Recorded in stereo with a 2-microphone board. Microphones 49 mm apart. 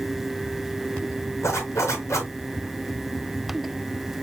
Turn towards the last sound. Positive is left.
turn(degrees=75)  # may be behind; listen again after turning